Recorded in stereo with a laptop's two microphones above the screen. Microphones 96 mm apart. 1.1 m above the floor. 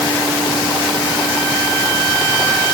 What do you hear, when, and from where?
Only background noise.